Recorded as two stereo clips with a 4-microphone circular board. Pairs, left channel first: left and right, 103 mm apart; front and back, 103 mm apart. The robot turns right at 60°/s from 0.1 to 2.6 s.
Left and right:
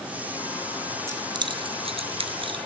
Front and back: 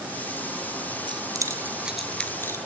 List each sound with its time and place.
1.1 s keys jangling: 150° right, 1.6 m; by 2.6 s 55° right, 1.6 m